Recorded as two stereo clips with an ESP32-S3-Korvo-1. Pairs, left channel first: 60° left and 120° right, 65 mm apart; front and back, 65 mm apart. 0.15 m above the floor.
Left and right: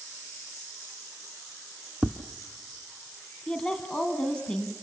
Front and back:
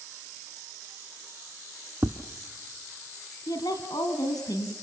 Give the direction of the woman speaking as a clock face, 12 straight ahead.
12 o'clock.